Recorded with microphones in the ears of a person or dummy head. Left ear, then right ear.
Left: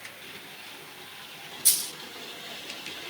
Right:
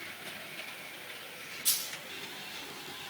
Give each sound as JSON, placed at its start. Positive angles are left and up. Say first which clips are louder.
{"t": 1.6, "sound": "a dropped coin", "louder": "left 5 dB", "side_deg": 60, "distance_m": 3.0}